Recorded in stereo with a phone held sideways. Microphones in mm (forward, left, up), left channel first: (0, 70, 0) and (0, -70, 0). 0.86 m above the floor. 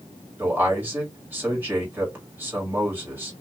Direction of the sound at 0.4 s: 15° right (ahead or behind).